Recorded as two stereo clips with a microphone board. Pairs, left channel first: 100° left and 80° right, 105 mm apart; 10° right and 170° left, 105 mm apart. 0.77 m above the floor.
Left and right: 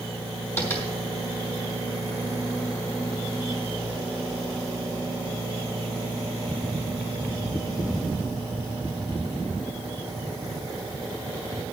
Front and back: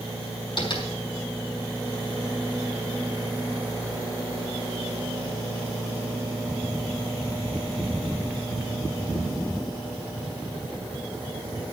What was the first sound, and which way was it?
Tapping, 30° left.